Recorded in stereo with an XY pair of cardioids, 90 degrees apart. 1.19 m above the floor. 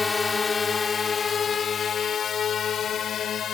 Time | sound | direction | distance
0.0 | a drone | 30° left | ?